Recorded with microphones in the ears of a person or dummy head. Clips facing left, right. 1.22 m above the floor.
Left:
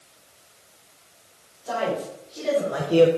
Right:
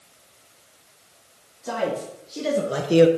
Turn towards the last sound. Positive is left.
turn(degrees=-15)  # may be behind; listen again after turning